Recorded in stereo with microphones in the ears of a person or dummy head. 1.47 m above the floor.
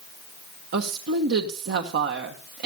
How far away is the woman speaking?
About 1.0 m.